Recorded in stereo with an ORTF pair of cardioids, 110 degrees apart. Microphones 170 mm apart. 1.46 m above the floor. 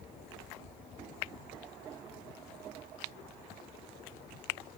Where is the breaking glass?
No breaking glass in this recording.